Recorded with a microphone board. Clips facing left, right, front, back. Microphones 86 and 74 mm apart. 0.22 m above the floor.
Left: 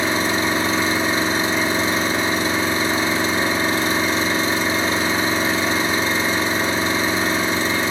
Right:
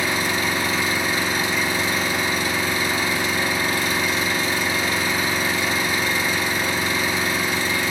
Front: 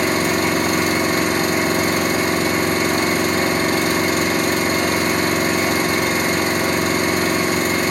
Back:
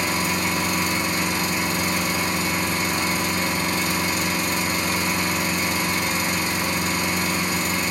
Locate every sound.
0.0 s an engine running: 25° left, 0.8 m